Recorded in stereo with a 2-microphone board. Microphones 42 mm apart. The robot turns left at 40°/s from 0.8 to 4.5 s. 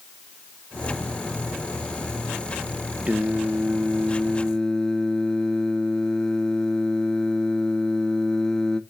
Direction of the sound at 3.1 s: 140° right.